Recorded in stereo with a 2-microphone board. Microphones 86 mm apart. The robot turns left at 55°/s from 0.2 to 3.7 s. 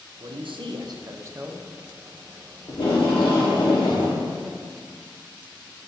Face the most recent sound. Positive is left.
turn(degrees=60)